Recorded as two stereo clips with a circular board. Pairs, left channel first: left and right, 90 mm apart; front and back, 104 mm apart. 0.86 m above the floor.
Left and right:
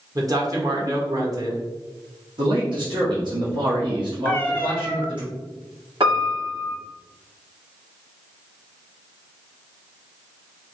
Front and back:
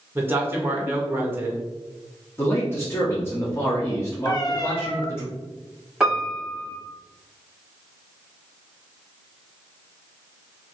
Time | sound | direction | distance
0.1 | a man speaking | 115° right | 1.1 m
2.4 | a man speaking | 65° right | 1.4 m
4.2 | a cat meowing | 25° left | 0.7 m
6.0 | a piano | 95° right | 2 m